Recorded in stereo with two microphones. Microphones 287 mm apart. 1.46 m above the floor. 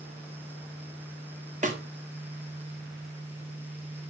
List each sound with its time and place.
1.6 s a snare drum: 25° right (ahead or behind), 1.1 m